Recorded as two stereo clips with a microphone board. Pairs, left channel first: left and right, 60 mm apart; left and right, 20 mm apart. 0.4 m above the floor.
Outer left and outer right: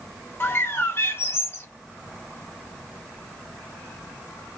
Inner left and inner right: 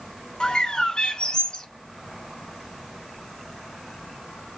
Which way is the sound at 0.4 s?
40° left (ahead or behind).